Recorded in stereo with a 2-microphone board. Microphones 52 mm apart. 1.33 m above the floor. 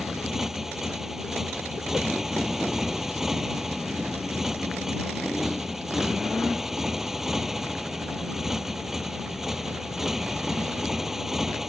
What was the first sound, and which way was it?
A motorcycle, 5° right (ahead or behind).